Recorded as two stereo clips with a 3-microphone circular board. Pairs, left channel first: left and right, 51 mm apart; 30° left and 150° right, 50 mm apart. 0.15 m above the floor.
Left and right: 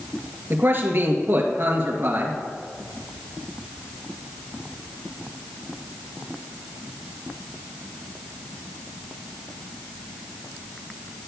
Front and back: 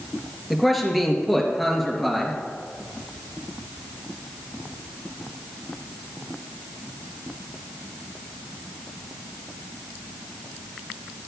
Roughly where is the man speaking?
Ahead right.